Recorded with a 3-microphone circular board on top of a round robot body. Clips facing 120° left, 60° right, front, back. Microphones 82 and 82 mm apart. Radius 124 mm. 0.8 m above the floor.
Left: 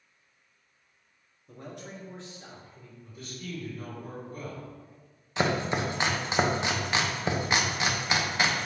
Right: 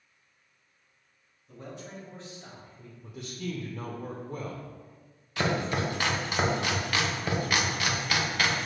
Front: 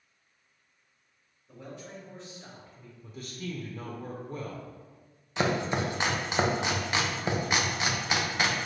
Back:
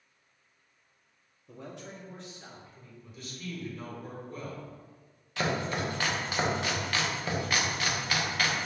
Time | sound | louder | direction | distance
1.5 | a man speaking | even, even | 170° left | 1.5 m
3.0 | a man speaking | right 5 dB, front 4 dB | 55° right | 1.0 m
5.4 | chopping | left 1 dB, front 3 dB | 60° left | 0.8 m